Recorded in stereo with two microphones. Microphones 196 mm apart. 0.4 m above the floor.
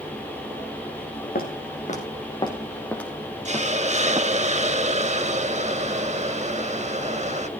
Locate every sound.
1.4 s footsteps: 50° left (ahead or behind), 3 m; by 4.3 s 20° right (ahead or behind), 3.5 m
3.5 s a hiss: 35° right (ahead or behind), 0.7 m